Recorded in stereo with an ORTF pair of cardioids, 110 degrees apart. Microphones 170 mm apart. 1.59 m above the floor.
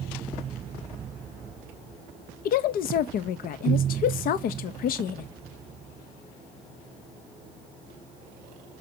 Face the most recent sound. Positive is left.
turn(degrees=60)